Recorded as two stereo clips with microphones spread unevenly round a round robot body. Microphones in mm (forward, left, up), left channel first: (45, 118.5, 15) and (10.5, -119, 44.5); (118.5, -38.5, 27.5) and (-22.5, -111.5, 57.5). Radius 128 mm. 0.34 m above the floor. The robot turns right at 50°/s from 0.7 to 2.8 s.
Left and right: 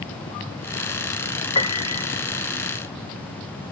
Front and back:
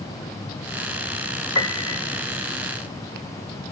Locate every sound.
1.6 s a piano: 35° left, 0.6 m; by 2.0 s 60° left, 0.6 m